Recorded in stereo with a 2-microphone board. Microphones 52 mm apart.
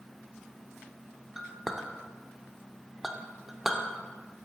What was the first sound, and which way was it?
A clink, 5° right (ahead or behind).